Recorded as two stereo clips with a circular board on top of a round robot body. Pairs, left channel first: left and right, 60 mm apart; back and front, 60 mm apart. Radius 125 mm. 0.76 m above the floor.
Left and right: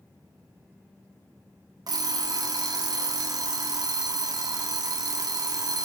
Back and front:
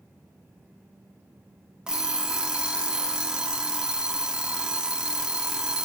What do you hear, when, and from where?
1.9 s an alarm clock: 75° right, 0.9 m